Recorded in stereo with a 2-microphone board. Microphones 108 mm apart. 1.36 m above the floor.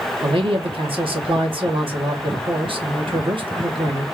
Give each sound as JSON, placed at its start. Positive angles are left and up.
{"t": 0.2, "sound": "a man speaking", "side_deg": -60, "distance_m": 1.3}